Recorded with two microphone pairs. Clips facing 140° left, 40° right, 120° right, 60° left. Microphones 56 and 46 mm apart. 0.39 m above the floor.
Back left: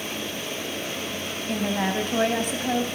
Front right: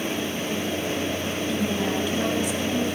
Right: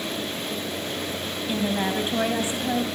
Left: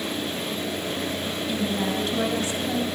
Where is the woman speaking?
175° left, 3 m.